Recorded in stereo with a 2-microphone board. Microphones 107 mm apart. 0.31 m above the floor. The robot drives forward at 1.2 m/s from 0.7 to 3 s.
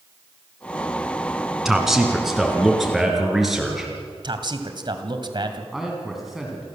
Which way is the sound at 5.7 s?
5° right (ahead or behind).